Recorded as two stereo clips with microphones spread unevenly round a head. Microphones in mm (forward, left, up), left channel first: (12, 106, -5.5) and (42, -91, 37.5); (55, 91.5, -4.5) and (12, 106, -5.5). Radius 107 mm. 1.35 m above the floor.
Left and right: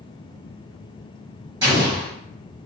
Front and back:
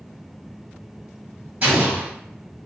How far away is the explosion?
About 1.5 m.